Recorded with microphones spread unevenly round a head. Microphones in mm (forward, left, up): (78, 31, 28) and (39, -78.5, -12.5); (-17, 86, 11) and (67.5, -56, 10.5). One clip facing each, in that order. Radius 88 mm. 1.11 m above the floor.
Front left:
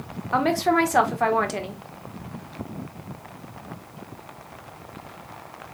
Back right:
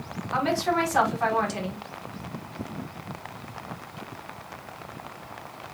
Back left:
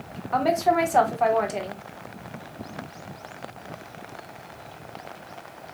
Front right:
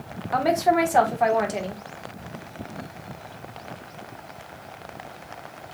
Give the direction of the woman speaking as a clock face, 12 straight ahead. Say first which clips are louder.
Front left 4 dB, front right 1 dB; 11 o'clock.